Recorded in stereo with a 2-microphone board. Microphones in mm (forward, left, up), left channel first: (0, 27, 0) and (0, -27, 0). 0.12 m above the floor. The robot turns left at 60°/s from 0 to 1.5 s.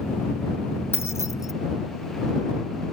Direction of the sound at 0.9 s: 45° left (ahead or behind).